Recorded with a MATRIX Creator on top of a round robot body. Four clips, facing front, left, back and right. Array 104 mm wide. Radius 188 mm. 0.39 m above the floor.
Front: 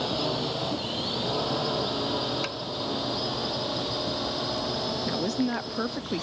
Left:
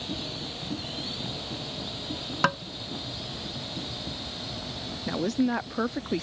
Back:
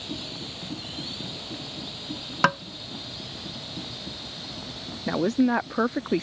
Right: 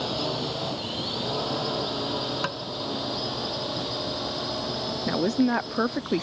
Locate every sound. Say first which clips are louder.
0.0 s a drone: right 8 dB, front 9 dB; 45° right
2.4 s tapping: left 5 dB, back 12 dB; 160° left
5.1 s a woman speaking: right 3 dB, back 8 dB; 145° right